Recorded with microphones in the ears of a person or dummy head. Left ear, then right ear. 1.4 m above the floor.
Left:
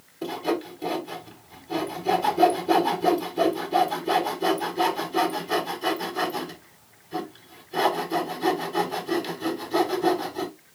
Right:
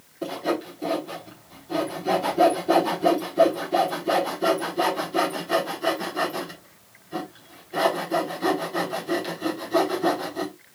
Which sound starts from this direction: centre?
Sawing, at 0.2 s.